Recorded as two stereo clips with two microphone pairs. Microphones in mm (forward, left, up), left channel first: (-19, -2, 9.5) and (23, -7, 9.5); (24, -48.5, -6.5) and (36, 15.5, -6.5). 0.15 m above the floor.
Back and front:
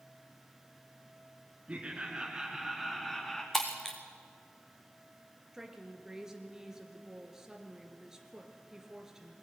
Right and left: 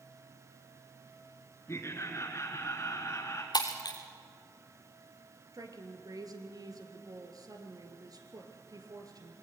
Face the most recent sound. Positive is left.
turn(degrees=70)